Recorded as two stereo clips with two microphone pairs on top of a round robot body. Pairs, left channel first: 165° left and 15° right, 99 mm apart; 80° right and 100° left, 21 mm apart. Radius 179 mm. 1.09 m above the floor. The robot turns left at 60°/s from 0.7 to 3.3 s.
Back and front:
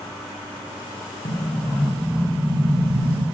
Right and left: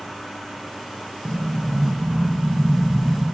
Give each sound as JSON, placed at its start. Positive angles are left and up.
{"t": 1.2, "sound": "an explosion", "azimuth_deg": 130, "distance_m": 2.5}